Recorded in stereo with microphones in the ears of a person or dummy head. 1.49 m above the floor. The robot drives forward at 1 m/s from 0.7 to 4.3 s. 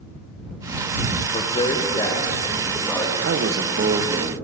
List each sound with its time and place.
1.3 s a man speaking: 30° left (ahead or behind), 1.3 m; by 3.1 s 15° left (ahead or behind), 3 m
3.2 s a man speaking: 60° right (ahead or behind), 1.0 m; by 4.3 s 30° right (ahead or behind), 1.8 m